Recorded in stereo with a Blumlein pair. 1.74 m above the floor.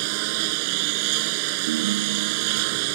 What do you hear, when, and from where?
0.0 s a lawn mower: 45° right
1.7 s a ringtone: 55° right